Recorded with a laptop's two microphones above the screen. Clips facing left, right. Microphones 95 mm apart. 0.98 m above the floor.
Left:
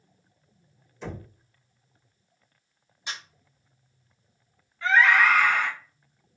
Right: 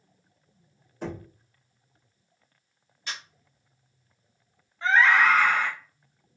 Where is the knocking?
50° right (ahead or behind), 1.1 m.